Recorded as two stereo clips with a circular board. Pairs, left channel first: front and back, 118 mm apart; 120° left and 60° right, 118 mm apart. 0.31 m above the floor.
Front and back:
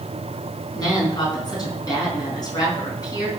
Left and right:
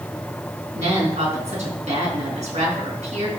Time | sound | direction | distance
0.8 | a woman speaking | 55° right | 4 m